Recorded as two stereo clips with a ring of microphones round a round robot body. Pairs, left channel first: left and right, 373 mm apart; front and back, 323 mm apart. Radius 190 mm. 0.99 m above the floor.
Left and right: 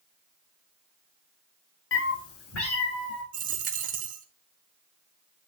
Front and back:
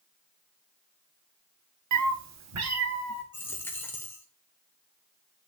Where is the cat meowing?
150° left, 0.8 m; by 3.2 s 140° left, 3 m.